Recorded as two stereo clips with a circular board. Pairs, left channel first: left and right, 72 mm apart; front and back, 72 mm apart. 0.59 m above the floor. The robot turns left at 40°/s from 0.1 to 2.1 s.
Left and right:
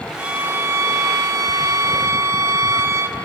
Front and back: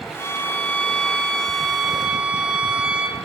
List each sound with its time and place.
0.2 s a violin: 35° right, 1.0 m; by 3.1 s 110° right, 1.0 m